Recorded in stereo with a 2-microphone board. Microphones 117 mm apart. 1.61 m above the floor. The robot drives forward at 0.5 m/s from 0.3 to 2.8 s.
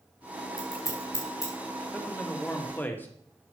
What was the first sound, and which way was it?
Scissors, 30° left (ahead or behind).